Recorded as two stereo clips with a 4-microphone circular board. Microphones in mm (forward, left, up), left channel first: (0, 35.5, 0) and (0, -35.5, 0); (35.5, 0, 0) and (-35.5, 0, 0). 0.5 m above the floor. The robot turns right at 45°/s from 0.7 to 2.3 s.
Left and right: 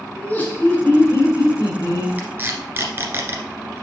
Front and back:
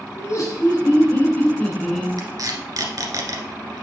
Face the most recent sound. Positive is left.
turn(degrees=-150)